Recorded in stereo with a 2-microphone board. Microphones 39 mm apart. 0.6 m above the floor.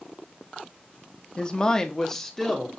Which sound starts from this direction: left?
A woman speaking, at 1.4 s.